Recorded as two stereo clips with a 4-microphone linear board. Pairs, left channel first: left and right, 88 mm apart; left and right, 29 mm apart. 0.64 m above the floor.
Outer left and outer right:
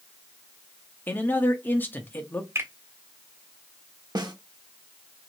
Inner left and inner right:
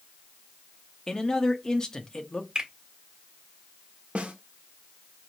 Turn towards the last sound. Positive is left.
turn(degrees=-55)  # may be behind; listen again after turning